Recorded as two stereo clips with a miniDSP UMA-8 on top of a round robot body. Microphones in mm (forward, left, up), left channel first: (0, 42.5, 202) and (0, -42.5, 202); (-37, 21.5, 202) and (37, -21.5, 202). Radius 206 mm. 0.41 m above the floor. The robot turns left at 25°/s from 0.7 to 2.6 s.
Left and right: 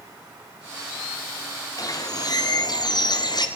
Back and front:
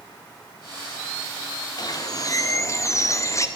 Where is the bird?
125° left, 1.4 m; by 3.5 s 105° left, 1.4 m.